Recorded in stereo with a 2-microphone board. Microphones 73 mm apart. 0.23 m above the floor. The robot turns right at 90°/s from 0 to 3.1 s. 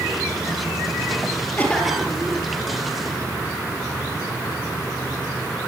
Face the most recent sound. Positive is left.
turn(degrees=-70)